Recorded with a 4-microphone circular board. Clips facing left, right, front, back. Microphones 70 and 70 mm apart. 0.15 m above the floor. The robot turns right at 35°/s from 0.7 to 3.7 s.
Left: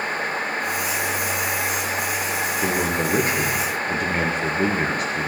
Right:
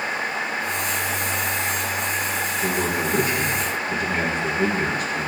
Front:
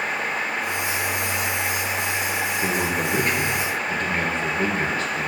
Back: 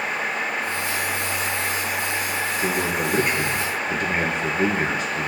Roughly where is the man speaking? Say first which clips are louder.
Left 1 dB, back 1 dB; left.